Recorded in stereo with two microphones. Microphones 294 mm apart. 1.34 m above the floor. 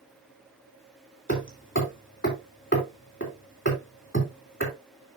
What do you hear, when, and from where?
1.3 s hammering: 40° left (ahead or behind), 3 m